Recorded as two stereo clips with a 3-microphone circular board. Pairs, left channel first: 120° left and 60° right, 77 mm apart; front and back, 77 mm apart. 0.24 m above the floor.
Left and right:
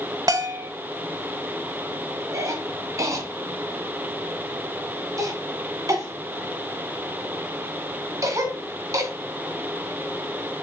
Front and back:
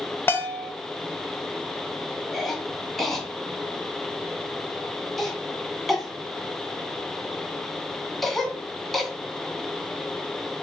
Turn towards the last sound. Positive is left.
turn(degrees=-85)